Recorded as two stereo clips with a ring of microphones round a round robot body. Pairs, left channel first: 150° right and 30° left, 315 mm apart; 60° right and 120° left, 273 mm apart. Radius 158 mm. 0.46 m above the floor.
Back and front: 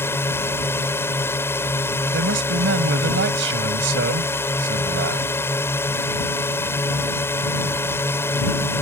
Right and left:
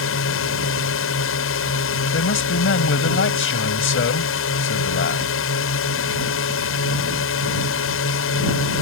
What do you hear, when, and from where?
0.0 s a drone: 70° right
2.1 s a man speaking: 20° right